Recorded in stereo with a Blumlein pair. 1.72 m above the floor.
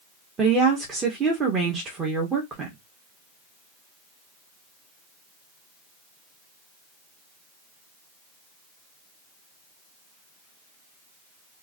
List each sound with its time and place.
0.4 s a woman speaking: 20° right, 1.3 m